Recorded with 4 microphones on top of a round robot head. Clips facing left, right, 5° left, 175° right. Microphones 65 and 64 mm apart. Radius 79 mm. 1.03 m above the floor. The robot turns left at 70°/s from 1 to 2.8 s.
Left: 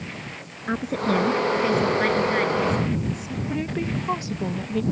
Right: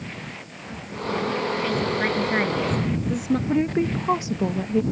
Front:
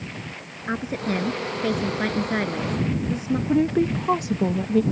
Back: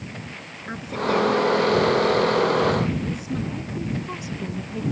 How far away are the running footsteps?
I don't hear running footsteps.